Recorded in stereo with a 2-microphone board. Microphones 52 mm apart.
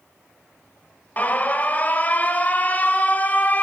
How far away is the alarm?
About 1.4 m.